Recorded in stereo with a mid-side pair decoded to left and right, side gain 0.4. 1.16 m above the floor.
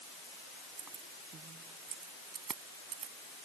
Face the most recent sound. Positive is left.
turn(degrees=-70)